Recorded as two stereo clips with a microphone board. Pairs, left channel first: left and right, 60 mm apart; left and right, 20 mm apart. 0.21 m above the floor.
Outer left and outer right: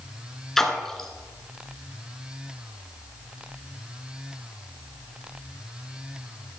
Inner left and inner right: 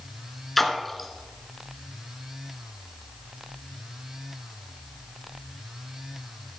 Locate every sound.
0.6 s a splash: 5° left (ahead or behind), 1.4 m